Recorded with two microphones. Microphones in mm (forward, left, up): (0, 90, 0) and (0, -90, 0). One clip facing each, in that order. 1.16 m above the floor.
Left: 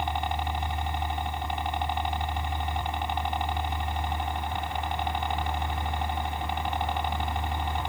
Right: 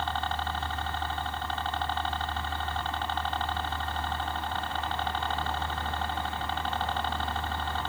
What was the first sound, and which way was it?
A helicopter, 15° left (ahead or behind).